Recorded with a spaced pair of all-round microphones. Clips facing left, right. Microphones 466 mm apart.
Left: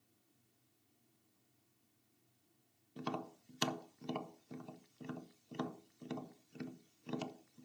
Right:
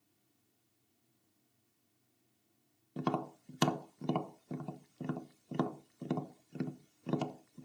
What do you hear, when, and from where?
3.0 s tapping: 70° right (ahead or behind), 0.6 m